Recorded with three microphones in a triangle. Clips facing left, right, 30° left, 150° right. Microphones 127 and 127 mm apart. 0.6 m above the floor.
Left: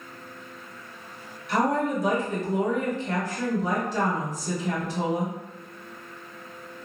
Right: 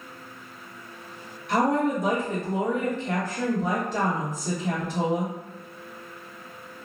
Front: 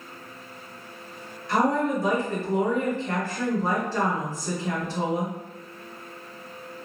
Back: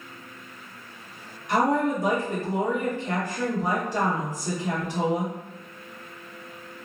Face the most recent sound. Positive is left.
turn(degrees=-80)